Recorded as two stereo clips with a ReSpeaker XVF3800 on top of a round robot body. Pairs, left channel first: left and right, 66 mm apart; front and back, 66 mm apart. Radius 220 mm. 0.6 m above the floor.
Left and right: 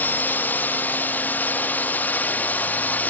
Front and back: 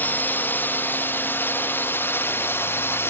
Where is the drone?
45° left; by 3.1 s 35° left.